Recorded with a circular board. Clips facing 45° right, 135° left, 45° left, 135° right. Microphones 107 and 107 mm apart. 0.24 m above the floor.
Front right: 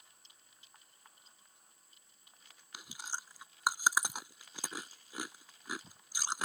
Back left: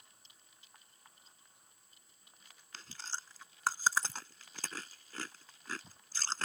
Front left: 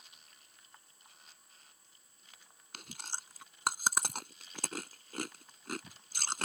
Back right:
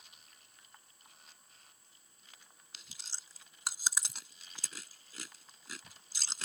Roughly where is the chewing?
Ahead left.